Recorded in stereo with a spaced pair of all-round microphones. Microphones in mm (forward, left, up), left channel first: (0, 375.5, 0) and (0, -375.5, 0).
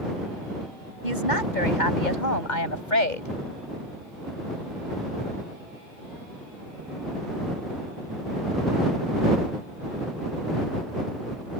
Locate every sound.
1.0 s a woman speaking: 80° left; by 3.3 s 85° left